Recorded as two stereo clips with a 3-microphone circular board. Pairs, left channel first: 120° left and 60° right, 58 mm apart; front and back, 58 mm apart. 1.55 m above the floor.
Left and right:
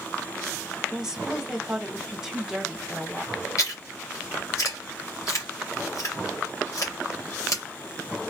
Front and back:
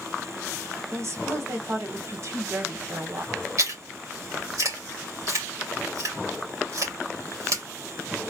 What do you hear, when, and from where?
0.9 s a woman speaking: 140° right, 1.1 m
3.6 s chewing: 155° left, 2 m